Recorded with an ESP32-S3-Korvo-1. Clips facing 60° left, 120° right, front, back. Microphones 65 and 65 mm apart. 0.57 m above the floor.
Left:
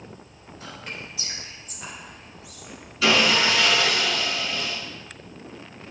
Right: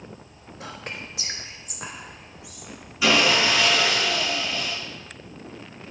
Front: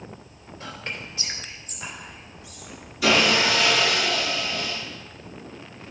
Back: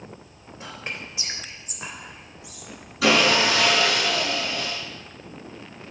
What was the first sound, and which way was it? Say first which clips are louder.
Whispering: right 2 dB, even; 105° right.